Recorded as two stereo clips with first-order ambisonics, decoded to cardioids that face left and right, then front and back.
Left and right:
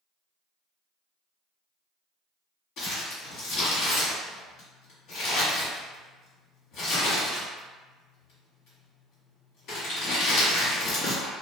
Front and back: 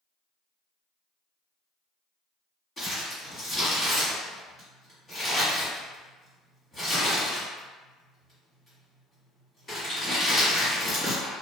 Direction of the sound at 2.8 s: 70° left.